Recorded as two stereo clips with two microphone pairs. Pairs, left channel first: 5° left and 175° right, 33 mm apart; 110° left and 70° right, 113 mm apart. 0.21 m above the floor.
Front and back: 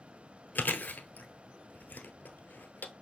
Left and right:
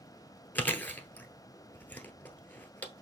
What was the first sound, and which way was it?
Chewing, 40° left.